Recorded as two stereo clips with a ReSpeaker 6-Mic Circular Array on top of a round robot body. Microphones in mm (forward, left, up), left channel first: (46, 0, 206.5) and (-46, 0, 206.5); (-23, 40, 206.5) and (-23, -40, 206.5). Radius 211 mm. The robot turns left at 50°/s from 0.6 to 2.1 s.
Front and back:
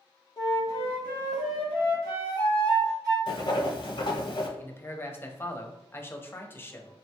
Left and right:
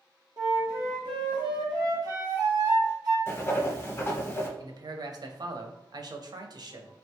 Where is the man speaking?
65° right, 0.7 m.